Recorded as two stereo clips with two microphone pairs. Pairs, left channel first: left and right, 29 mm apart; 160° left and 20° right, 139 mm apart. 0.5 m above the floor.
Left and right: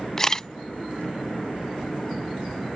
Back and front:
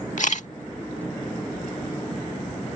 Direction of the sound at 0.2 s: 160° left.